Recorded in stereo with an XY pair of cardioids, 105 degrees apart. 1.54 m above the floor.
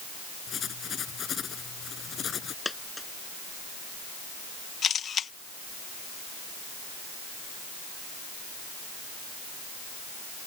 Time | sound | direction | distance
0.5 | writing | 50° left | ?
2.6 | a dropped coin | 15° left | ?
4.8 | a camera shutter | 50° left | ?